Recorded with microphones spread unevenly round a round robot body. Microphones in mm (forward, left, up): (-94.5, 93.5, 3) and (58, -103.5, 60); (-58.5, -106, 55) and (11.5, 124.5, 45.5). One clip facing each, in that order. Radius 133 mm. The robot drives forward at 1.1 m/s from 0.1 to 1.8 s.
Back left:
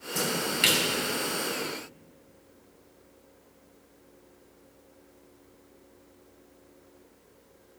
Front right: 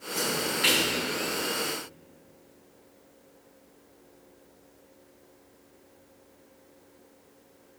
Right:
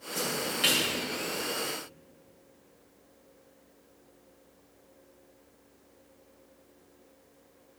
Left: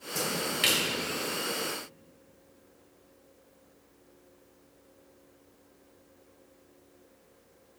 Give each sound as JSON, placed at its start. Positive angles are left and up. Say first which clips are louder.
{"t": 0.1, "sound": "a splash", "louder": "even, even", "azimuth_deg": 110, "distance_m": 2.0}